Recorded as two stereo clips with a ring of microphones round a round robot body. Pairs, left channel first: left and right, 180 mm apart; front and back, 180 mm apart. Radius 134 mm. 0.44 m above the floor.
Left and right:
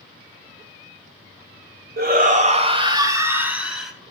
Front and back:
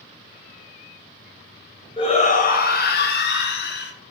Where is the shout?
65° right, 1.8 m; by 3.9 s straight ahead, 2.5 m.